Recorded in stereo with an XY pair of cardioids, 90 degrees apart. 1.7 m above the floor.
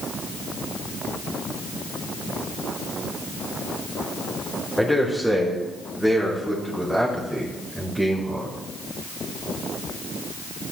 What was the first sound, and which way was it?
A man speaking, straight ahead.